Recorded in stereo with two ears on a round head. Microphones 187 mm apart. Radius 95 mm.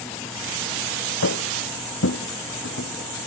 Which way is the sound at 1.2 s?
70° left (ahead or behind).